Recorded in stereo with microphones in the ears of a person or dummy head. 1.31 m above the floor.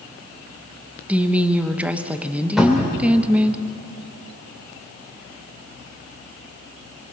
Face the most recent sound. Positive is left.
turn(degrees=0)  # may be behind; listen again after turning